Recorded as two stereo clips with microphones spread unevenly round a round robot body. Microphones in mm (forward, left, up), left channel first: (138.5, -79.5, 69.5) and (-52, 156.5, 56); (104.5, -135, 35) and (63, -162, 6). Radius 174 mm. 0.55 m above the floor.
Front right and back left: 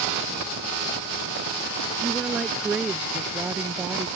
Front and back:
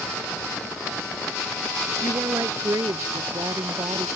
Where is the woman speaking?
145° right.